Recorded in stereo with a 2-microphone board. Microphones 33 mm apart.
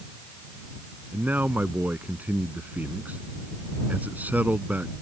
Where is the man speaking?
65° right (ahead or behind).